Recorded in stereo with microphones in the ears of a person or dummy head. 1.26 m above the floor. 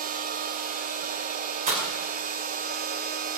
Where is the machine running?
45° right (ahead or behind), 0.9 m.